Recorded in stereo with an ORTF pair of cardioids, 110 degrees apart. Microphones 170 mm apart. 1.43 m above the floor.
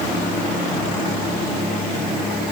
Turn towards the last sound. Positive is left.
No sound to turn to.